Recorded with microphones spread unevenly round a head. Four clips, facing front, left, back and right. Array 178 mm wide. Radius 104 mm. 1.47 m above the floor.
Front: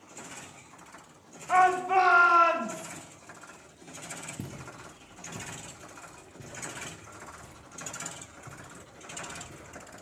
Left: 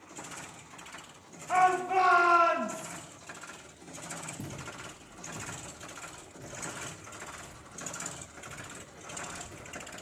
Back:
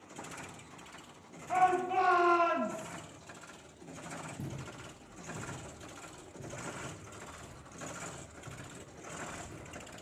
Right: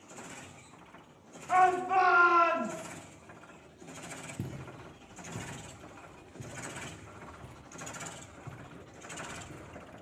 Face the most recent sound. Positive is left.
turn(degrees=-100)